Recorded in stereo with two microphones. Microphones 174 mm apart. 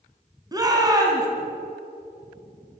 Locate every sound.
0.5 s a shout: 20° right (ahead or behind), 2.5 m